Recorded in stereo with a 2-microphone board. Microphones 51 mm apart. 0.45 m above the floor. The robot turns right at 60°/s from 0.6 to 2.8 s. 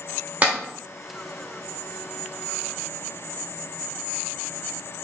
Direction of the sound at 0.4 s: 30° right (ahead or behind).